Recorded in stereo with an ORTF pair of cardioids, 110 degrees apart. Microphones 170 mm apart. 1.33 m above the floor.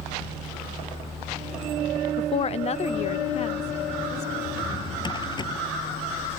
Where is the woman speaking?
35° left; by 4.3 s 40° left.